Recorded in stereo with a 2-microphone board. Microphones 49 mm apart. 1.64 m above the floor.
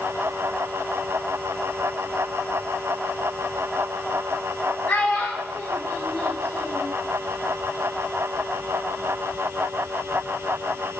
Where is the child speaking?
40° left (ahead or behind), 0.9 m; by 6.9 s 45° left (ahead or behind), 2 m.